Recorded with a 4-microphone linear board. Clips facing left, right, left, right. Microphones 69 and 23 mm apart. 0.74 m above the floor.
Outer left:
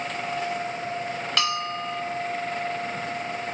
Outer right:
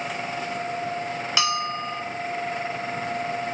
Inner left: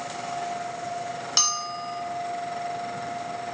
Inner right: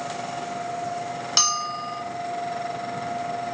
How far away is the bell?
About 1.9 m.